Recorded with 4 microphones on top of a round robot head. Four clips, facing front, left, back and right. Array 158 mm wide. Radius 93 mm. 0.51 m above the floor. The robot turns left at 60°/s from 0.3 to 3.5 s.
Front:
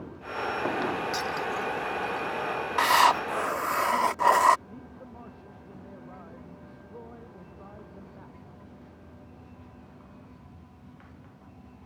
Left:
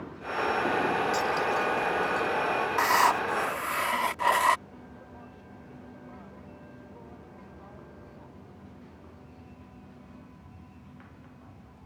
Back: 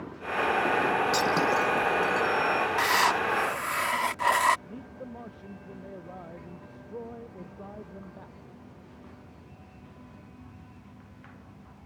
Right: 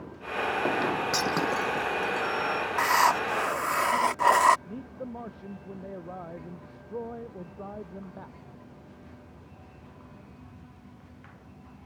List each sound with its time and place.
1.1 s breaking glass: 125° right; by 2.3 s 165° left
2.8 s writing: 10° left; by 4.6 s 35° right
4.7 s a man speaking: 105° right